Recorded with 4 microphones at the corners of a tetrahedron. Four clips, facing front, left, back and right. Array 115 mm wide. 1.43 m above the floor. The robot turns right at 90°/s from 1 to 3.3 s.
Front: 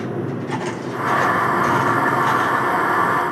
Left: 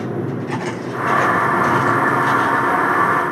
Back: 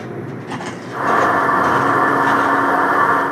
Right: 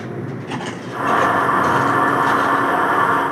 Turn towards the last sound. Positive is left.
turn(degrees=-30)